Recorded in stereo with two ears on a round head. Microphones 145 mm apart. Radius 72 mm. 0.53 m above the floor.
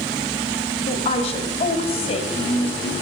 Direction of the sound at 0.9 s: 35° left (ahead or behind).